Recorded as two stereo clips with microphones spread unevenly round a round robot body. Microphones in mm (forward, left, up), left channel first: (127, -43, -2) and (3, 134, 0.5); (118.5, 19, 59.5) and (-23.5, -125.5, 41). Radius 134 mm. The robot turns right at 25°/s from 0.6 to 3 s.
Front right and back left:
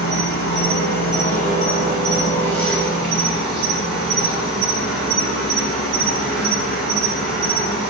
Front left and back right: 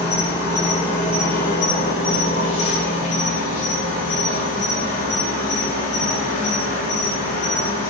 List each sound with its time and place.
0.0 s an insect: 25° right, 4 m; by 7.9 s 35° left, 4 m